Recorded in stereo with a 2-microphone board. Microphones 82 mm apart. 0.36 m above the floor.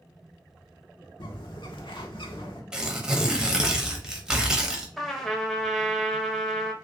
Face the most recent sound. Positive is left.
turn(degrees=0)  # may be behind; listen again after turning